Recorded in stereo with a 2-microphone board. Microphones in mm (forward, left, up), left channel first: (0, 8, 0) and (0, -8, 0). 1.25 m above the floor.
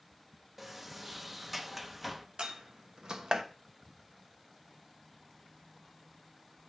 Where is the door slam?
50° right (ahead or behind), 1.0 m.